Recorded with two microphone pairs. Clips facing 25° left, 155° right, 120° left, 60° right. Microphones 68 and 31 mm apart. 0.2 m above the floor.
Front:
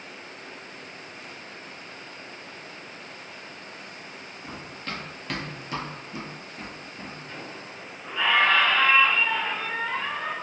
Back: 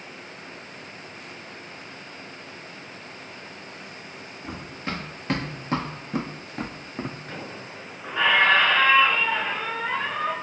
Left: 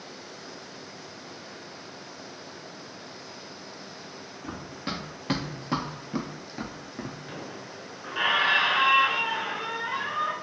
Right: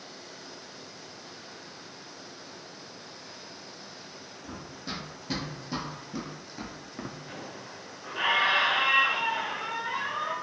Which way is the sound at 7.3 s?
170° right.